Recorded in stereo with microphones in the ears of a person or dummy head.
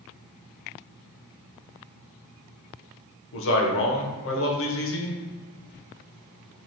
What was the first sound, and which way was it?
A man speaking, 65° left (ahead or behind).